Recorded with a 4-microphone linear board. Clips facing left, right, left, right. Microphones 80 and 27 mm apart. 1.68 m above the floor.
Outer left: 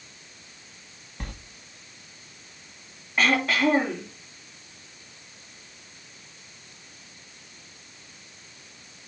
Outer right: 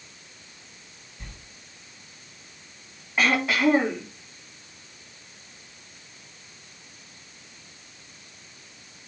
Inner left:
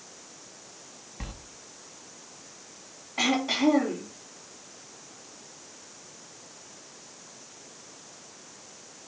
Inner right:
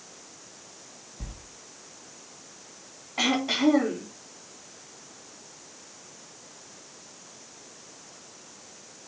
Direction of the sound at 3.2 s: 5° right (ahead or behind).